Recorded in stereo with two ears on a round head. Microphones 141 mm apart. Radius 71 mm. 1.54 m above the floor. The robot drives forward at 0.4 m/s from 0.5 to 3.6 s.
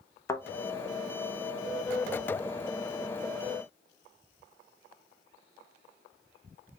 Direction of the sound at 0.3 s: 20° left (ahead or behind).